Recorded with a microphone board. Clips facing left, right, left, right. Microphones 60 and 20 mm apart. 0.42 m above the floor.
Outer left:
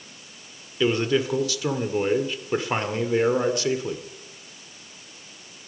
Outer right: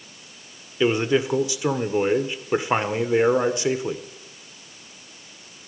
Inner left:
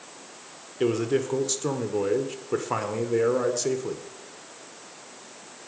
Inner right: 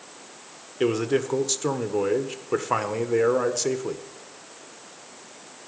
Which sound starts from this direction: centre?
A man speaking, at 0.8 s.